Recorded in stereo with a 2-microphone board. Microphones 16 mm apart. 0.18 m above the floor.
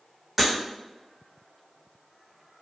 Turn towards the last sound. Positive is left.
turn(degrees=-10)  # may be behind; listen again after turning